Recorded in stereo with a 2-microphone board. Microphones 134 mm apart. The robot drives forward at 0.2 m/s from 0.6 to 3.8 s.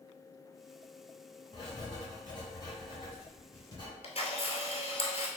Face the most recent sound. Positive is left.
turn(degrees=50)  # may be behind; listen again after turning